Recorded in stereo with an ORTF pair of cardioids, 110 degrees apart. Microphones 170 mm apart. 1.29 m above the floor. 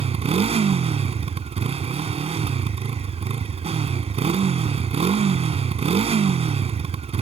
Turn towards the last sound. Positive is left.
turn(degrees=-35)